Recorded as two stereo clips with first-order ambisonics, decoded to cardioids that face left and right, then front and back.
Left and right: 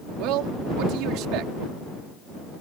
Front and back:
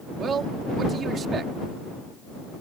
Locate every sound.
0.2 s a man speaking: 115° right